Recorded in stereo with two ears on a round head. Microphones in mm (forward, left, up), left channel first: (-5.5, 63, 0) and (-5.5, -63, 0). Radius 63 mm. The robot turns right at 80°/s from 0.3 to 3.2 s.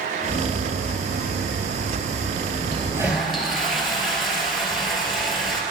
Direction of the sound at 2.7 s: 40° right.